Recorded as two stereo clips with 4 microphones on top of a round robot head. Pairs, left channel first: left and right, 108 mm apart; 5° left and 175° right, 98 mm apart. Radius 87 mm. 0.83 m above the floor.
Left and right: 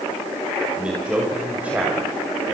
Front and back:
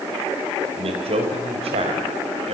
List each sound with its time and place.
0.8 s a man speaking: 170° right, 4.5 m